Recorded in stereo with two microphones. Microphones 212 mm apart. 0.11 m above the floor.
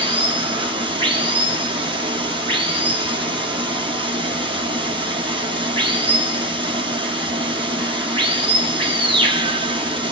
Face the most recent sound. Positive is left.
turn(degrees=-25)  # may be behind; listen again after turning